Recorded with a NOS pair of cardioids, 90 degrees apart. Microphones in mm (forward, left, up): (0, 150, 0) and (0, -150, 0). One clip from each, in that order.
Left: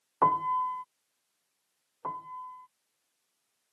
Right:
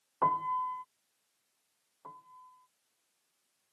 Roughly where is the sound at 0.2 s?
Ahead left.